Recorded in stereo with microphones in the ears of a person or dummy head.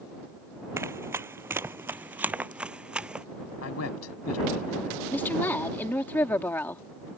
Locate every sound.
0.8 s running footsteps: 15° right (ahead or behind); by 3.2 s 10° right (ahead or behind)
3.6 s a man speaking: 80° left
5.1 s a woman speaking: 5° left (ahead or behind)